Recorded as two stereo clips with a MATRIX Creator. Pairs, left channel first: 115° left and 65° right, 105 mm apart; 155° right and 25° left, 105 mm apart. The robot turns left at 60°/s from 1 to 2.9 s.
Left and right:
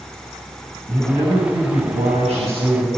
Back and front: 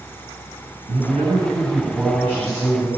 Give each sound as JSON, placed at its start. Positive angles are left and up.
{"t": 0.9, "sound": "a man speaking", "azimuth_deg": -5, "distance_m": 7.5}